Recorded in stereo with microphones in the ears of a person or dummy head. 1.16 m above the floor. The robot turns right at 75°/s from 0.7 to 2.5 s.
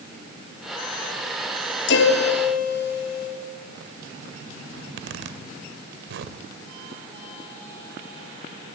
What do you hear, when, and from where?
1.9 s a piano: 70° left, 3.5 m; by 3.3 s 120° left, 3.5 m
4.8 s a zipper: 70° right (ahead or behind), 1.9 m